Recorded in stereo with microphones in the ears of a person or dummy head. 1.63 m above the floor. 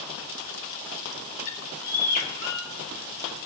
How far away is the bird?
About 1.4 m.